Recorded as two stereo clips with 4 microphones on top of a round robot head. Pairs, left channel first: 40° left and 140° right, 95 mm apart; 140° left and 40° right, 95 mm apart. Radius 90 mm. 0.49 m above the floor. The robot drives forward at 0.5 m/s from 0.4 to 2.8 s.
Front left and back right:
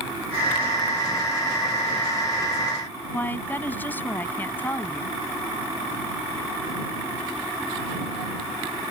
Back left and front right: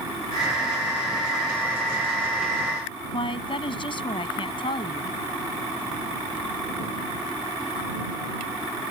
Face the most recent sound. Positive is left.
turn(degrees=110)